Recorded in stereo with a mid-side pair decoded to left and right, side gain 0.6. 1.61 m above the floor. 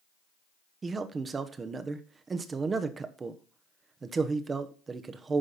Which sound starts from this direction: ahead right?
A man speaking, at 0.8 s.